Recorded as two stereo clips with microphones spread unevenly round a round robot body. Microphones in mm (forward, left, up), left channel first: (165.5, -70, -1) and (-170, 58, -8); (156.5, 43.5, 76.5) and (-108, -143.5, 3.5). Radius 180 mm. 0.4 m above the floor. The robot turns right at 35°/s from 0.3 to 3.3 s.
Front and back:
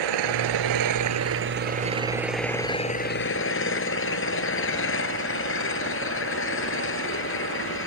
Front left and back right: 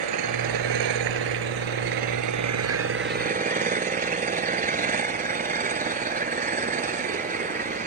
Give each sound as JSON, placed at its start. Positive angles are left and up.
{"t": 0.0, "sound": "an engine running", "azimuth_deg": 175}